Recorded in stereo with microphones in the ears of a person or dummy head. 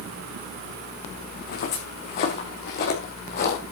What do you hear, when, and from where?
1.3 s footsteps: 55° left (ahead or behind), 5 m